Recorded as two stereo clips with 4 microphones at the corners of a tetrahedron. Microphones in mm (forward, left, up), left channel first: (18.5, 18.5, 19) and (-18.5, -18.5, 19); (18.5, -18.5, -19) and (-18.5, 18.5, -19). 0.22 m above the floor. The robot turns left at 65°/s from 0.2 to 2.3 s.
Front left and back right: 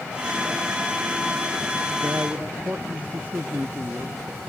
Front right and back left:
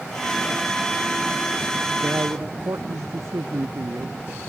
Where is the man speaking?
Straight behind; by 4.2 s 165° left.